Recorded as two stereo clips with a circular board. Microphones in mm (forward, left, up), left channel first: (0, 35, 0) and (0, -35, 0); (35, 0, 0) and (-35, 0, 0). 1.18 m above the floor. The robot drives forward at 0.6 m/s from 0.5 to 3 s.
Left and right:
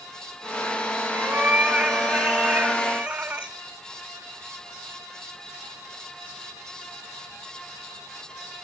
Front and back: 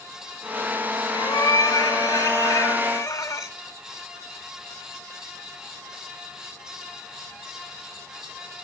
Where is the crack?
No crack in this recording.